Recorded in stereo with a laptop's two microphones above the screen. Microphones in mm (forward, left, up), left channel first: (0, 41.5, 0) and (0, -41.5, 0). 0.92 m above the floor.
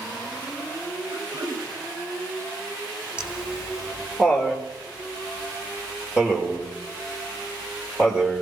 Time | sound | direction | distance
1.1 | throat clearing | 70° right (ahead or behind) | 3.5 m
3.2 | laughter | 15° right (ahead or behind) | 4 m